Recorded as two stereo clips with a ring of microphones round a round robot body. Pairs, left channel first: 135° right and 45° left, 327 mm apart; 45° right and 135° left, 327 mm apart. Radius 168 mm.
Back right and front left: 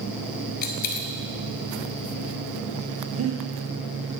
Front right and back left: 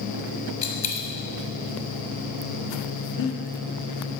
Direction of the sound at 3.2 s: 15° right.